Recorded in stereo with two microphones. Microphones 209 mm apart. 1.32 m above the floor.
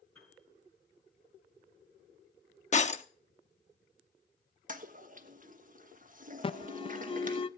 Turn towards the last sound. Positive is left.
turn(degrees=25)  # may be behind; listen again after turning